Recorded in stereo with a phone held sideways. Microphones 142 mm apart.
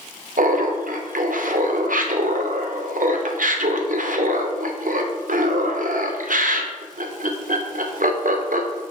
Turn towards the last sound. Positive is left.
turn(degrees=-70)  # may be behind; listen again after turning